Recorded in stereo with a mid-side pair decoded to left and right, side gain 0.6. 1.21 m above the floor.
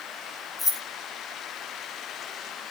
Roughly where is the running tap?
I don't hear a running tap.